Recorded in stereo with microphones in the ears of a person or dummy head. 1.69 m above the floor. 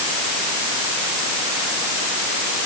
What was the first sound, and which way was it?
Only background noise.